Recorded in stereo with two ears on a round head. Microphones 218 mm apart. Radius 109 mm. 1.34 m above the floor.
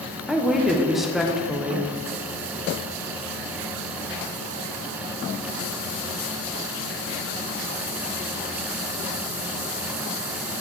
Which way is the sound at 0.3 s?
Centre (ahead or behind).